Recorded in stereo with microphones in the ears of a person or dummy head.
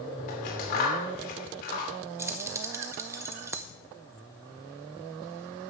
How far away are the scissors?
About 3 m.